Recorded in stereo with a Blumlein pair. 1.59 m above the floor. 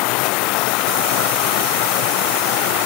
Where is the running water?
40° left.